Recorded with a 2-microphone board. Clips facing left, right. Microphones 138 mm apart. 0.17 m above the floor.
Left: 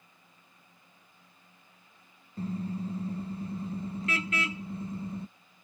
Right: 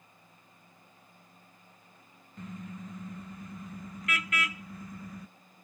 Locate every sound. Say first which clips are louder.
2.4 s a car horn: left 8 dB; 30° left (ahead or behind); by 5.3 s 25° left (ahead or behind)